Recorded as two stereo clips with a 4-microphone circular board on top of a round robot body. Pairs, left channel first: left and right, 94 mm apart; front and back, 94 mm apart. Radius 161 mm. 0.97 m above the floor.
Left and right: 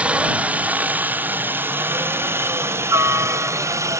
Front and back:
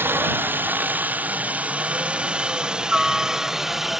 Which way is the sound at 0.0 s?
150° right.